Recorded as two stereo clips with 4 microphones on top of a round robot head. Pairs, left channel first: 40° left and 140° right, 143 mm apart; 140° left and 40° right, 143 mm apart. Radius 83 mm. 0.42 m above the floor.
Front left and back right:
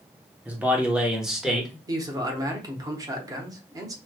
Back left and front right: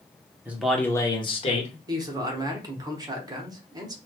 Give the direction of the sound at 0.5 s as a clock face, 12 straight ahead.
3 o'clock.